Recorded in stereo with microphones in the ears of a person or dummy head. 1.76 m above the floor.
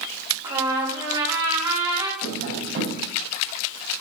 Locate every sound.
0.4 s a trumpet: 20° right (ahead or behind), 3.5 m
2.2 s tapping: 60° right (ahead or behind), 6.5 m